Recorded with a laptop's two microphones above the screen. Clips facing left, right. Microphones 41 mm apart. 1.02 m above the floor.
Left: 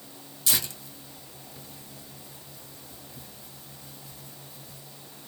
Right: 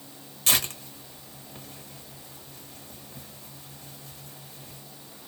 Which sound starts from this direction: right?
Tearing paper, at 0.5 s.